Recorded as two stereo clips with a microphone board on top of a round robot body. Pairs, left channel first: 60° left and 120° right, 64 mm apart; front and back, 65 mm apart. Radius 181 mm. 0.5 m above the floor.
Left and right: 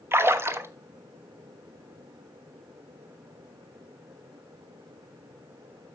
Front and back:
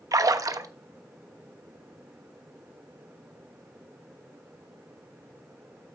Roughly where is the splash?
Behind.